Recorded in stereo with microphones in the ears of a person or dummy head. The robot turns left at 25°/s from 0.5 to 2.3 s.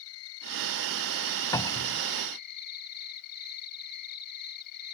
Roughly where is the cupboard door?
Left.